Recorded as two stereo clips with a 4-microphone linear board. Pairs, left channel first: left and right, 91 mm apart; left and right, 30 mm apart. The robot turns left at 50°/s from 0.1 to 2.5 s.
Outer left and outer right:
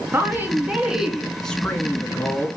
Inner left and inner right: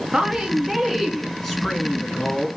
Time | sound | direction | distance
0.1 | a woman speaking | 125° right | 1.6 m